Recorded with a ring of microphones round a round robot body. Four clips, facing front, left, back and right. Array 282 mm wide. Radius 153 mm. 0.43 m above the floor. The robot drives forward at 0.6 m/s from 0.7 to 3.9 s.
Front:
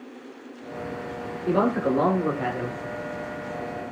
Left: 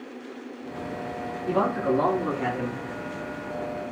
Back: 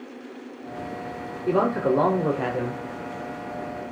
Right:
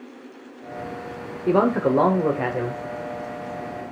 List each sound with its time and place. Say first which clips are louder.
1.5 s a man speaking: right 5 dB, back 1 dB; 95° right, 1.4 m; by 2.8 s 130° right, 1.7 m